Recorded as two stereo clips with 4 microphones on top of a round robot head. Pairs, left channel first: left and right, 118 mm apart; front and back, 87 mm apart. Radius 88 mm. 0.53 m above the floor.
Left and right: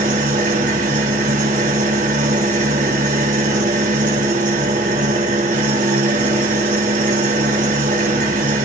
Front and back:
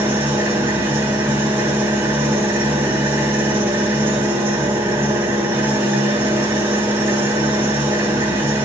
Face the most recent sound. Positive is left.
turn(degrees=-110)